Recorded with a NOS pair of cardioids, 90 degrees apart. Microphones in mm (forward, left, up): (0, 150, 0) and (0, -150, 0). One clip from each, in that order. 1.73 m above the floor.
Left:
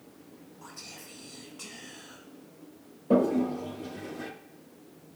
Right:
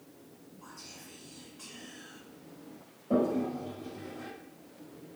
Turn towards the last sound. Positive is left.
turn(degrees=45)